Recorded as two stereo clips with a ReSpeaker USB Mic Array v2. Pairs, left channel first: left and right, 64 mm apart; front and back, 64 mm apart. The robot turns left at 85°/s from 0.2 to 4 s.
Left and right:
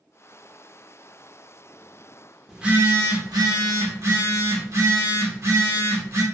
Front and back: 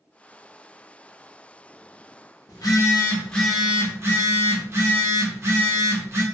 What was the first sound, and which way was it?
A phone buzzing, 5° right.